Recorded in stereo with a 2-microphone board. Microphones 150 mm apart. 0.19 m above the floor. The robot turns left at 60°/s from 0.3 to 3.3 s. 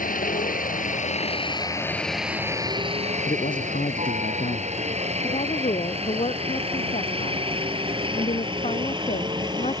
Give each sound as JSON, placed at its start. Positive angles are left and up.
{"t": 0.0, "sound": "a helicopter", "side_deg": 65}
{"t": 3.2, "sound": "a man speaking", "side_deg": 60}
{"t": 5.2, "sound": "a woman speaking", "side_deg": 45}